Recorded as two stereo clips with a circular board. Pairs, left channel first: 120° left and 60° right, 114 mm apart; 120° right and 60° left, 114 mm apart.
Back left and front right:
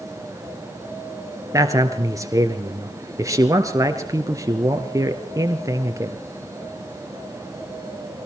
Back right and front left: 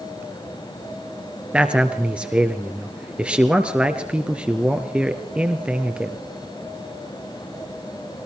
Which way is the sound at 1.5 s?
15° right.